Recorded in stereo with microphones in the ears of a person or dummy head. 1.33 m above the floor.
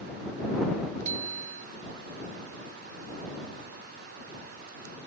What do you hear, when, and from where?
1.1 s a bicycle bell: 45° right (ahead or behind)